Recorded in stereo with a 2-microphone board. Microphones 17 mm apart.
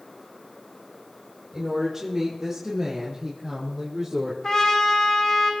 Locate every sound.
1.5 s a woman speaking: 20° right (ahead or behind), 7 m; by 4.3 s 10° right (ahead or behind), 5 m
4.4 s a trumpet: 35° left (ahead or behind), 3 m